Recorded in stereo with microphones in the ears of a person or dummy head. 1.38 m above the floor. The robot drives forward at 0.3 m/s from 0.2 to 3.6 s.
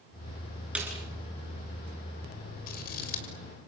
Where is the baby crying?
I don't hear a baby crying.